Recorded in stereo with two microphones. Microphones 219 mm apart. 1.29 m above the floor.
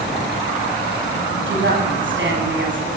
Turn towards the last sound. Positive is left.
turn(degrees=-65)  # may be behind; listen again after turning